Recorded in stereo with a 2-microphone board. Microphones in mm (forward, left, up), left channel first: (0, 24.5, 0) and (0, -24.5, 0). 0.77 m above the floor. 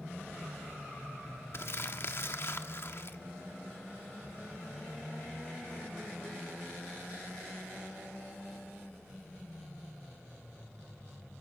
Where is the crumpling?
55° left (ahead or behind), 1.4 m.